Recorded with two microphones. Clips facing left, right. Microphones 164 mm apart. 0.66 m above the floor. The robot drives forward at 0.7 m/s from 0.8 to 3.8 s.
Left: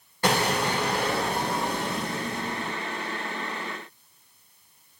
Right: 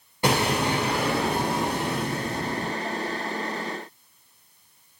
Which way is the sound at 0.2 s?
15° right (ahead or behind).